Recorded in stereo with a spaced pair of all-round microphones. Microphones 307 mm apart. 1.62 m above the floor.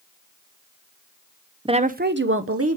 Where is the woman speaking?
15° right (ahead or behind), 0.6 m; by 2.8 s 50° right (ahead or behind), 1.0 m.